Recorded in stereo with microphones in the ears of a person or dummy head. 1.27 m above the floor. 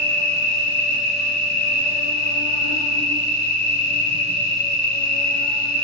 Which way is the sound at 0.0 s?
10° left (ahead or behind).